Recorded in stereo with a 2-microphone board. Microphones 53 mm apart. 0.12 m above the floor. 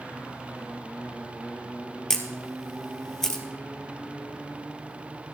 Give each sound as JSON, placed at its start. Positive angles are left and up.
{"t": 2.1, "sound": "a camera shutter", "side_deg": 10, "distance_m": 1.8}